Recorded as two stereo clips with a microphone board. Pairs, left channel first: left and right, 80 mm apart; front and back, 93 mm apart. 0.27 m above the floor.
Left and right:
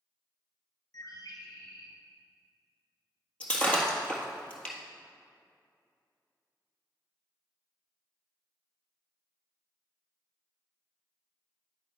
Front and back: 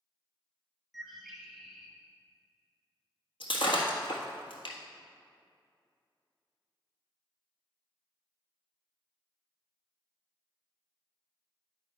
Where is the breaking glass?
15° left, 1.4 m.